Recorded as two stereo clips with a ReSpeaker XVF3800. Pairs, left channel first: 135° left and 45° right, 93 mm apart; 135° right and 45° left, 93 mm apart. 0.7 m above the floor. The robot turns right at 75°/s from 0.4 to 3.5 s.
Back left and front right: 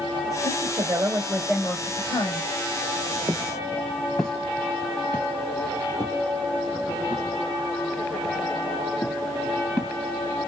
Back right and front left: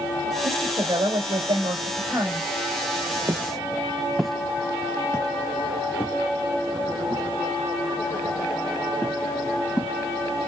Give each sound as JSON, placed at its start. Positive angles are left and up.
{"t": 0.4, "sound": "a woman speaking", "azimuth_deg": -35, "distance_m": 2.5}
{"t": 3.3, "sound": "footsteps", "azimuth_deg": -5, "distance_m": 0.8}